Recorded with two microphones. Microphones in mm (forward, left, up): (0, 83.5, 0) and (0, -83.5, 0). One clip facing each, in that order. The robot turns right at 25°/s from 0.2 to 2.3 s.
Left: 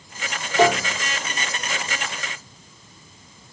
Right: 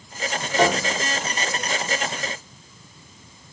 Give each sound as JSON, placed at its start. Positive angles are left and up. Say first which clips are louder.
{"t": 0.6, "sound": "a piano", "louder": "left 2 dB", "side_deg": 0, "distance_m": 1.2}